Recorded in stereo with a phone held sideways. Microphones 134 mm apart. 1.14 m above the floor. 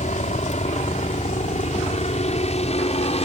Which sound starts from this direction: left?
A helicopter, at 0.0 s.